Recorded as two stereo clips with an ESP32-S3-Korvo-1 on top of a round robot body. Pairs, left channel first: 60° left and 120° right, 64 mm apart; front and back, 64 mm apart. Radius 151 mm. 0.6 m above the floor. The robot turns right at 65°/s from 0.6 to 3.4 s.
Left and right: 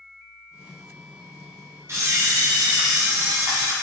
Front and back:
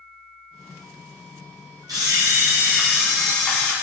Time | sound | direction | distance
1.9 | a camera shutter | 165° right | 0.8 m